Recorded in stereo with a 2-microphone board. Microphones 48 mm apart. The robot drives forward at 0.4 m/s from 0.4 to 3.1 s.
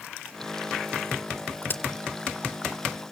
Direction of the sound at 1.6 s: 40° left (ahead or behind).